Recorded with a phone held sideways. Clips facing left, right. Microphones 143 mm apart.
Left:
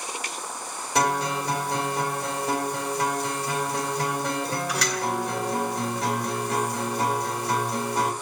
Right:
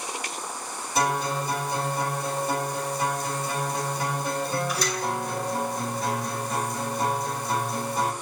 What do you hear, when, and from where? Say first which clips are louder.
0.9 s a guitar: left 1 dB; 70° left (ahead or behind), 3.5 m